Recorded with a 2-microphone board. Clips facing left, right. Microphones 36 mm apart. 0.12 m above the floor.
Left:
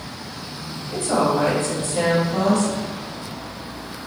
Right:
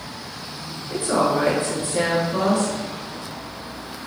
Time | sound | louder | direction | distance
0.9 | a woman speaking | even | 30° right (ahead or behind) | 1.2 m